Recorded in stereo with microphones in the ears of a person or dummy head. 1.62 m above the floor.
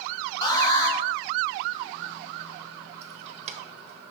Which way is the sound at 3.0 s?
40° right (ahead or behind).